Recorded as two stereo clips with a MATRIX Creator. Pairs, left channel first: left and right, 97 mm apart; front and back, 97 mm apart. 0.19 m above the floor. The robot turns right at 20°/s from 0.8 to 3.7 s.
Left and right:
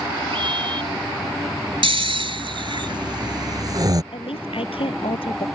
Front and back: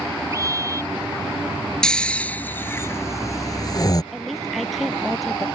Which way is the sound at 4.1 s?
90° left.